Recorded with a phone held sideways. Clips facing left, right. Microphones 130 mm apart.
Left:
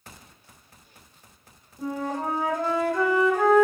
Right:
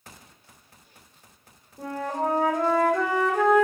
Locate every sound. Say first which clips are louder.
1.8 s a flute: right 1 dB; 65° right (ahead or behind), 1.3 m